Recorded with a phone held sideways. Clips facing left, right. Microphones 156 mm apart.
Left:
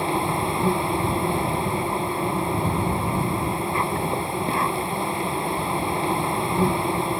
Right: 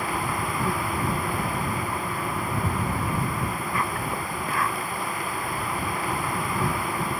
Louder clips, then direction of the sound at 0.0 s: Left 5 dB; 25° left (ahead or behind).